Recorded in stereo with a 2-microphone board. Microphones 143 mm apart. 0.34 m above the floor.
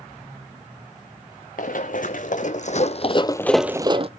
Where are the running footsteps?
70° left (ahead or behind), 2 m; by 4.1 s 45° right (ahead or behind), 0.8 m.